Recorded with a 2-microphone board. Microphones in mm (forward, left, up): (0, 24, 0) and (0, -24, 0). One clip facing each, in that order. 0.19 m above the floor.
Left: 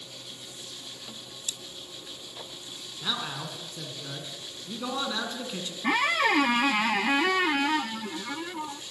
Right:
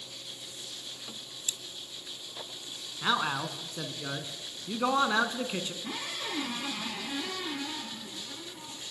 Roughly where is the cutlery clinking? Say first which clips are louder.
Even; right.